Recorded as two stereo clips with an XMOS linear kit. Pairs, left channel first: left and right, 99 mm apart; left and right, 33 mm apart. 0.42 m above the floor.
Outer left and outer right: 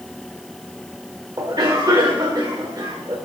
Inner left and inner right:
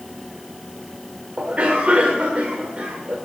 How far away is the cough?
About 1.5 m.